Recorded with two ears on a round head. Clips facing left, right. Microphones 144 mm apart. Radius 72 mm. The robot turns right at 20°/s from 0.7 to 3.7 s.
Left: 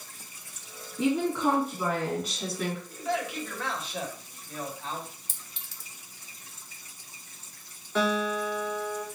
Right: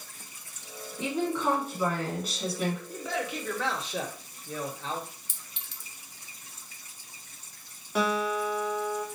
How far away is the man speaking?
About 1.4 m.